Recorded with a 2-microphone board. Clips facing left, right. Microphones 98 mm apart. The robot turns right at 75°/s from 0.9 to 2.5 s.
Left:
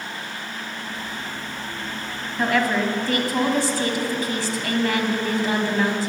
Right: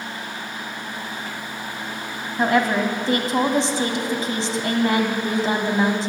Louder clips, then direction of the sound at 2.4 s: Right 2 dB; 25° right (ahead or behind).